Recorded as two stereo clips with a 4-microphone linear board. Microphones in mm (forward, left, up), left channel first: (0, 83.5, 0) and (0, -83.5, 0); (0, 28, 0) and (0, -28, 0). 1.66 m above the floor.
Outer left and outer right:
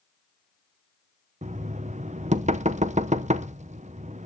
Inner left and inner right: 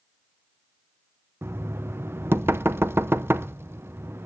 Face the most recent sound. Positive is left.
turn(degrees=-45)  # may be behind; listen again after turning